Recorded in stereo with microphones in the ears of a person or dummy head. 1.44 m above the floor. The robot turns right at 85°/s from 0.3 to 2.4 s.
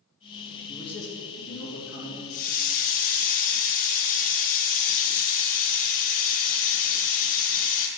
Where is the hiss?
40° left (ahead or behind), 1.2 m; by 7.9 s 50° left (ahead or behind), 1.2 m.